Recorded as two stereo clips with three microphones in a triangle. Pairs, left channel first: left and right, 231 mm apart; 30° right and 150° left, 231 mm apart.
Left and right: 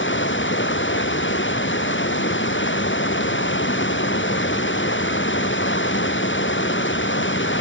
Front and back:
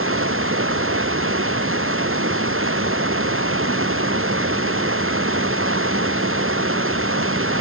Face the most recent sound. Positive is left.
turn(degrees=125)